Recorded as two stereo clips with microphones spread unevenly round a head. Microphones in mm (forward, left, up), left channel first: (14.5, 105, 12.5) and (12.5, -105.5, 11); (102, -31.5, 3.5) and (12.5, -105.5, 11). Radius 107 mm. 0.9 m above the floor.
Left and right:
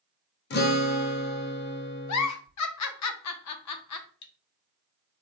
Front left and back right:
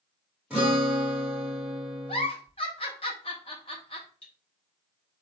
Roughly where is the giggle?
Left.